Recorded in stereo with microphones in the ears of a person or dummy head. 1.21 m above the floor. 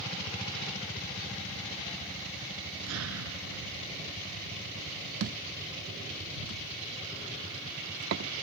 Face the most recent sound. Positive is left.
turn(degrees=-60)  # may be behind; listen again after turning